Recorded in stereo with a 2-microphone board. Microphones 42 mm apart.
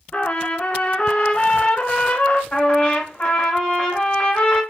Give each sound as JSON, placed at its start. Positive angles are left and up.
{"t": 0.1, "sound": "a trumpet", "side_deg": 35, "distance_m": 0.6}
{"t": 2.5, "sound": "a trumpet", "side_deg": 30, "distance_m": 1.4}